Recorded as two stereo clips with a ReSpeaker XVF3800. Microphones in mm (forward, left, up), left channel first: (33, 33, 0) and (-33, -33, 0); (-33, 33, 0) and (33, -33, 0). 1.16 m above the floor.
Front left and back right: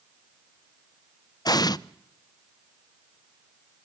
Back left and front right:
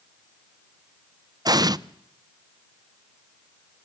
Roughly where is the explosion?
Ahead.